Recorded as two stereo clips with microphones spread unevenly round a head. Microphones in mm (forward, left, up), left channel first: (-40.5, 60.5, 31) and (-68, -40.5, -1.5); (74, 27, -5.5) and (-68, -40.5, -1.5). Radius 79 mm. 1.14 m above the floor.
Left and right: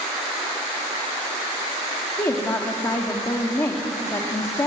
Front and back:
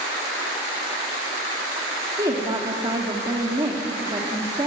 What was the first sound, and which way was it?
A woman speaking, 140° left.